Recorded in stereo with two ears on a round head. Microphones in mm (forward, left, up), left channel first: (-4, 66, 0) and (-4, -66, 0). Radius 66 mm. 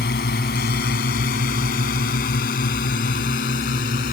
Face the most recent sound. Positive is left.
turn(degrees=70)  # may be behind; listen again after turning